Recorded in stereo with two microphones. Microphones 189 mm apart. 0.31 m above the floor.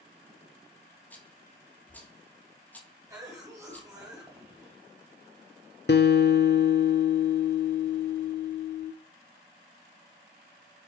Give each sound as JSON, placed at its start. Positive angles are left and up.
{"t": 1.1, "sound": "a rattle", "side_deg": 10, "distance_m": 2.5}
{"t": 3.1, "sound": "a cough", "side_deg": -15, "distance_m": 1.9}
{"t": 5.9, "sound": "a guitar", "side_deg": 65, "distance_m": 0.5}